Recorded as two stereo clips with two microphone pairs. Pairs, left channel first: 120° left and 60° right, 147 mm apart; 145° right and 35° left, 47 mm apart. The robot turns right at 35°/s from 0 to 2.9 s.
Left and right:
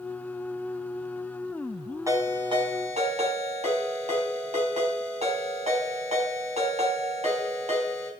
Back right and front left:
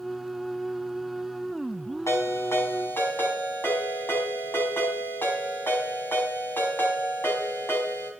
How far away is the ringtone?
About 3 m.